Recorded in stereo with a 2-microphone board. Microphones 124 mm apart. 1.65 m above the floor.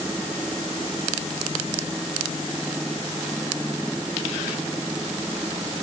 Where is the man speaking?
I don't hear a man speaking.